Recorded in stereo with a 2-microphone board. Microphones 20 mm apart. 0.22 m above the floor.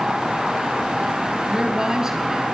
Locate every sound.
1.5 s a woman speaking: 30° right (ahead or behind), 3 m